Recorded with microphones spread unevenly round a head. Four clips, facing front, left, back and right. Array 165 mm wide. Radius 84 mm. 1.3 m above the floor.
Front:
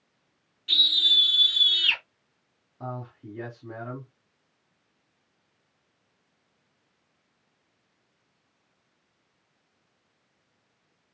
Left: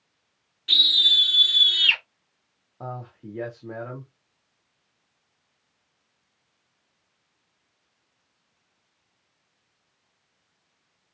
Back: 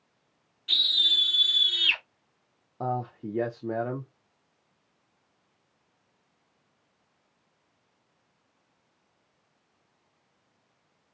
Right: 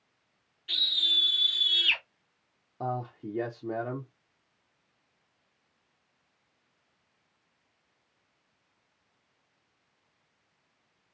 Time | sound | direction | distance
0.7 | a scream | 80° left | 2.5 m
2.8 | a man speaking | 170° right | 0.6 m